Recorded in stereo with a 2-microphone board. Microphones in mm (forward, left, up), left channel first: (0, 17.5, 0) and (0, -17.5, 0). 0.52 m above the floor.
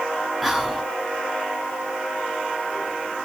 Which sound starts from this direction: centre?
Whispering, at 0.4 s.